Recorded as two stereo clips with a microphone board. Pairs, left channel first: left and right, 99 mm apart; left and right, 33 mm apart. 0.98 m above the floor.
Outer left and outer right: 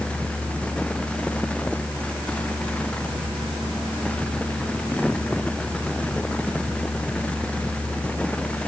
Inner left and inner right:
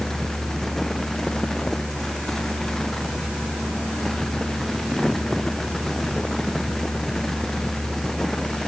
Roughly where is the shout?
No shout in this recording.